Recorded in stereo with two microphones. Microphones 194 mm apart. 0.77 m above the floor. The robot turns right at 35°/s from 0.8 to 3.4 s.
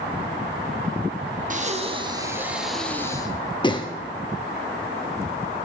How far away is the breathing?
About 0.7 m.